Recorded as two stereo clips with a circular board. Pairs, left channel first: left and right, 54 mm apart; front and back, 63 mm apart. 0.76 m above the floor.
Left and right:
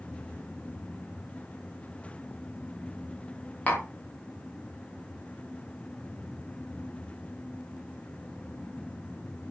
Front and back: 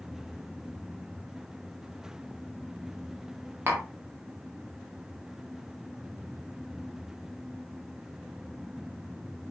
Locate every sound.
3.7 s tapping: 145° left, 0.6 m